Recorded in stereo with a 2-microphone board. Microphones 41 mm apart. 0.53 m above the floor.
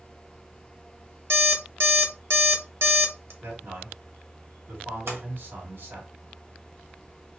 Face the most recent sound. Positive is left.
turn(degrees=-80)